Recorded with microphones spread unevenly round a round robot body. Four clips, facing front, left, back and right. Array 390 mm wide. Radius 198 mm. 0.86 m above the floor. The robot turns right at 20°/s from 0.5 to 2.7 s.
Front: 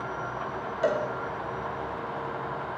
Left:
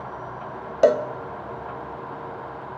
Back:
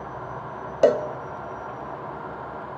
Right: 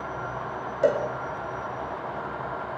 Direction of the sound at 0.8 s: 135° left.